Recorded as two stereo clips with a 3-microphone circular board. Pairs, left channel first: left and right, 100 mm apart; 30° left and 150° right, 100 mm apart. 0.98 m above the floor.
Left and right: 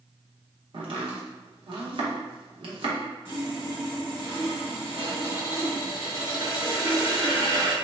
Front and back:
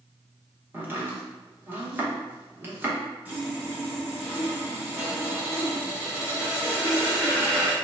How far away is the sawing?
About 1.4 m.